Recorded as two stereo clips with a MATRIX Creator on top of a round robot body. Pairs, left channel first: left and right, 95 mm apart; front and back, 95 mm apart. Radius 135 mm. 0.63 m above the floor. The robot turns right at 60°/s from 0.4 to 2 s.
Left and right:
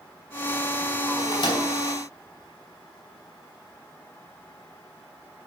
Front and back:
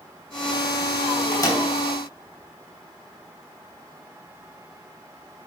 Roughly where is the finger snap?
I don't hear a finger snap.